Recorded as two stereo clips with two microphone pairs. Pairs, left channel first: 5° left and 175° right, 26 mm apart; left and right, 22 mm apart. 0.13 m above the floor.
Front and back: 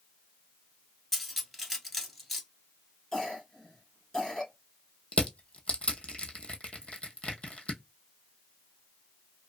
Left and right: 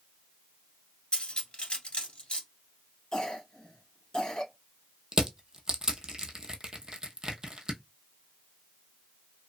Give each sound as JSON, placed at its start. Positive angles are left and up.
{"t": 1.1, "sound": "cutlery clinking", "azimuth_deg": 90, "distance_m": 1.0}
{"t": 3.1, "sound": "a cough", "azimuth_deg": 50, "distance_m": 1.8}
{"t": 5.1, "sound": "crushing", "azimuth_deg": -35, "distance_m": 0.6}